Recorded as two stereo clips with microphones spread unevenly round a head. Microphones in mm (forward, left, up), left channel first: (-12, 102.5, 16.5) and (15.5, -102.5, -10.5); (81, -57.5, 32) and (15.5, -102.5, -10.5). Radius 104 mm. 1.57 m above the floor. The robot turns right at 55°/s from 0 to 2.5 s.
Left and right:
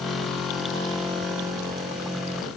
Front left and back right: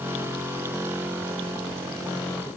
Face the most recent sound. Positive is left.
No sound to turn to.